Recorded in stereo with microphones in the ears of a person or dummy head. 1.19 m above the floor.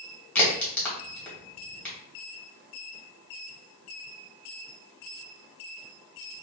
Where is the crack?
10° left (ahead or behind), 1.0 m.